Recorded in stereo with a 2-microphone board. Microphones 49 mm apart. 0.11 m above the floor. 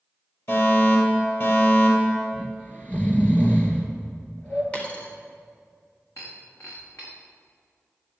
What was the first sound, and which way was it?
A fire alarm, 50° left (ahead or behind).